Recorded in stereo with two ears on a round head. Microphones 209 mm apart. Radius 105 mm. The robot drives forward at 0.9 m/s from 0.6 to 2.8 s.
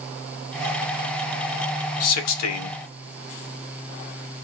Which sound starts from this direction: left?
A man speaking, at 2.0 s.